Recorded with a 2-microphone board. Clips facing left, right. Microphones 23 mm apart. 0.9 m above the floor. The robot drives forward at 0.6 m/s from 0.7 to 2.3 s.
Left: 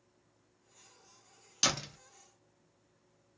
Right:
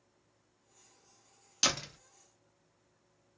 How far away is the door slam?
About 0.7 m.